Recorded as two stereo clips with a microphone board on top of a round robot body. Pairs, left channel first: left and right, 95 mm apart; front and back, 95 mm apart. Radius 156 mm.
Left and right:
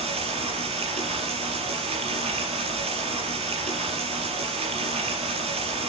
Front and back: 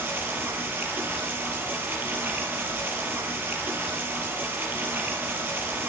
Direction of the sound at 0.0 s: 105° right.